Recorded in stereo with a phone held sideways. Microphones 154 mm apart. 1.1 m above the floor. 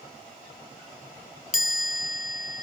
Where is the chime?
60° left (ahead or behind), 0.5 m.